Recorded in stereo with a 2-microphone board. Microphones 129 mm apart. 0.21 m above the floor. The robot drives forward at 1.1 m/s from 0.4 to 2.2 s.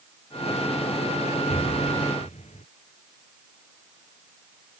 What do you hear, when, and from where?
1.5 s an explosion: 60° left (ahead or behind)